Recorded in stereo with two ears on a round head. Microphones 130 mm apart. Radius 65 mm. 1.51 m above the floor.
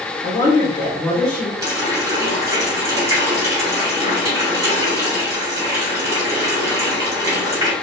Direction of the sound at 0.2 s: 25° left (ahead or behind).